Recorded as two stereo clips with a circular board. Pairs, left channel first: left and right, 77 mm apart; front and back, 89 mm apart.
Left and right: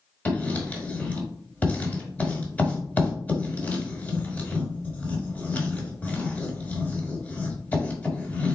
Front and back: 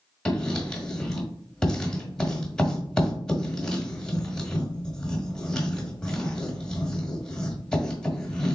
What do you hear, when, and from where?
0.2 s writing: 65° left, 1.2 m